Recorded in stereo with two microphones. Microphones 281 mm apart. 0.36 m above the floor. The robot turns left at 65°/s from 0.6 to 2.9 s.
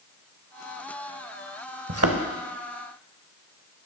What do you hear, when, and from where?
1.9 s a thud: 55° right (ahead or behind), 0.7 m; by 2.2 s 60° right (ahead or behind), 0.7 m